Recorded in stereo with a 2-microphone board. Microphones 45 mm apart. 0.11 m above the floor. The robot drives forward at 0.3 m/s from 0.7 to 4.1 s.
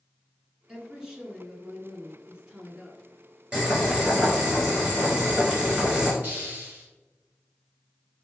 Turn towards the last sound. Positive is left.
turn(degrees=-40)  # may be behind; listen again after turning